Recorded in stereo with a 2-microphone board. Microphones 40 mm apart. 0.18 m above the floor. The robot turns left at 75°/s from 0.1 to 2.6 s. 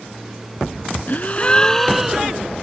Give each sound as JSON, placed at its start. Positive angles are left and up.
{"t": 1.1, "sound": "a gasp", "azimuth_deg": 65}